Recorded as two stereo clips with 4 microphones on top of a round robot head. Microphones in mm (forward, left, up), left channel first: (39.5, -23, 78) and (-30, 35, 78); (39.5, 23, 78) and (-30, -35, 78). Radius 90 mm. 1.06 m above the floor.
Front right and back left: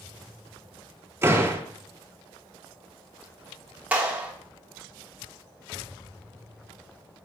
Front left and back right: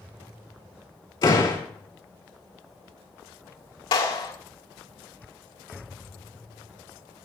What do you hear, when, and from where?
1.2 s a door slam: 80° left, 3 m
3.9 s a clap: 65° left, 3 m